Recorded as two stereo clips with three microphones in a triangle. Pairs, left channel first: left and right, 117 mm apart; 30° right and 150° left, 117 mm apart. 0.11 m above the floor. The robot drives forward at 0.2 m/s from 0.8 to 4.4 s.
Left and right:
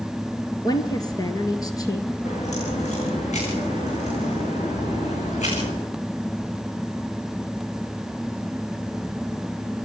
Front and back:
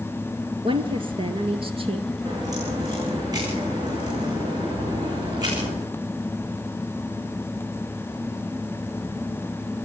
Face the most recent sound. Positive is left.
turn(degrees=95)